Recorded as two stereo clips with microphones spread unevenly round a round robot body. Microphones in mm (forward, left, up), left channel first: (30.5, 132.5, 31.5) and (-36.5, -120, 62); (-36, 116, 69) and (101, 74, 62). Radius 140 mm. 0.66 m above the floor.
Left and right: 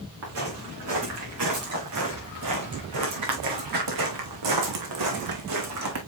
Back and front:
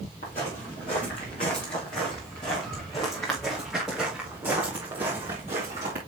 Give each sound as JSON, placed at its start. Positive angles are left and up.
{"t": 0.2, "sound": "footsteps", "azimuth_deg": -140, "distance_m": 4.0}